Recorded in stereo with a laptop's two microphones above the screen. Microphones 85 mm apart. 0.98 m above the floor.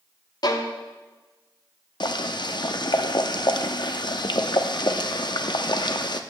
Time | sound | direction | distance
0.4 | a violin | 50° left (ahead or behind) | 0.9 m
2.0 | boiling | 60° left (ahead or behind) | 0.6 m